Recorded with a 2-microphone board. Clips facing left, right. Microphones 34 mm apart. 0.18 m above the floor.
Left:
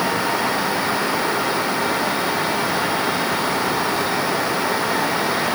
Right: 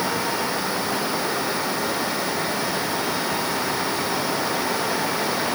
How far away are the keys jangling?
No keys jangling in this recording.